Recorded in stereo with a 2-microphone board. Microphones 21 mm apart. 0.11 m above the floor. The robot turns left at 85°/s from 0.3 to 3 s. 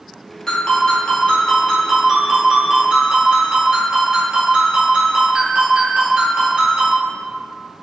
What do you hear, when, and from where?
0.5 s a ringtone: 130° left, 1.3 m; by 7.0 s 90° right, 1.3 m